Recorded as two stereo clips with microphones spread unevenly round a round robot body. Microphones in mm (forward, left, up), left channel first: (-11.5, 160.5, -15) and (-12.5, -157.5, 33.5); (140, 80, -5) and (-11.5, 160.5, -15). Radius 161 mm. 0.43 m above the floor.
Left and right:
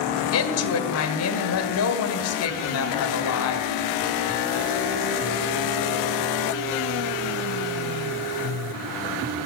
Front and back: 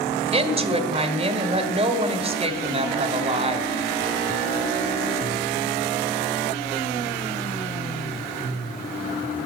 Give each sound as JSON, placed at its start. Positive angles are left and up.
{"t": 0.3, "sound": "a woman speaking", "azimuth_deg": 110, "distance_m": 1.5}